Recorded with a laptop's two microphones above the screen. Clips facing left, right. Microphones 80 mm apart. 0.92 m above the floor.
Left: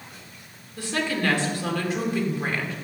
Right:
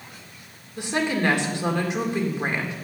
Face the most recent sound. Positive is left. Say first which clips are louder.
# right 2 dB
turn(degrees=-20)  # may be behind; listen again after turning